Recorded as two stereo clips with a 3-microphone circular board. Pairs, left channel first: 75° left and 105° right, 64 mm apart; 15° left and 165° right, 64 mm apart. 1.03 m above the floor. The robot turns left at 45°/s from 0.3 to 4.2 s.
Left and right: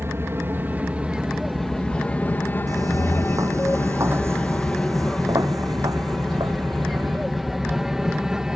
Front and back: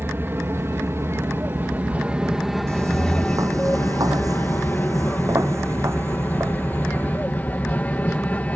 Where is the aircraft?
130° right; by 8.6 s 30° right.